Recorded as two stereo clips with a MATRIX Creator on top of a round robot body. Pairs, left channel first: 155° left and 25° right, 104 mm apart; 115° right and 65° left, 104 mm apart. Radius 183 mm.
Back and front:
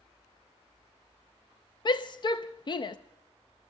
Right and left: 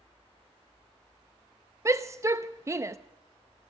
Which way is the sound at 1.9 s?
125° left.